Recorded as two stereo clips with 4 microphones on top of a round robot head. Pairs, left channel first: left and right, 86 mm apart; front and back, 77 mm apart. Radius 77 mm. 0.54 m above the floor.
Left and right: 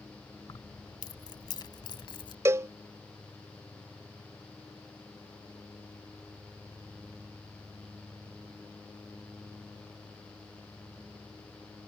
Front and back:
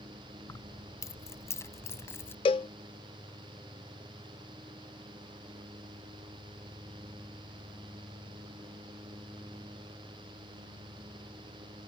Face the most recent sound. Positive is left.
turn(degrees=-30)